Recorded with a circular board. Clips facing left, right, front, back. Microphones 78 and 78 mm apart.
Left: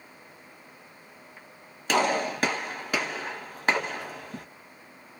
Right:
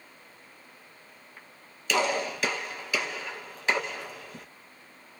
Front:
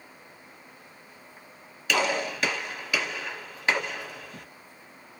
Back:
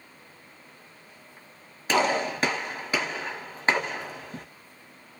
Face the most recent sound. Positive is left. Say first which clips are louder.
# left 3 dB, back 3 dB
turn(degrees=125)